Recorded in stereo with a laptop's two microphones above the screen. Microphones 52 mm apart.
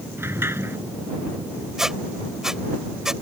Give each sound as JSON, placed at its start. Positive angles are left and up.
{"t": 0.2, "sound": "a sliding door", "side_deg": -50}
{"t": 1.8, "sound": "a squeak", "side_deg": -10}